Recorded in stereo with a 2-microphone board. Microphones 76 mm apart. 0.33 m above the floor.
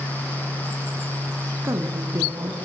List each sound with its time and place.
1.6 s a woman speaking: 45° right (ahead or behind), 4 m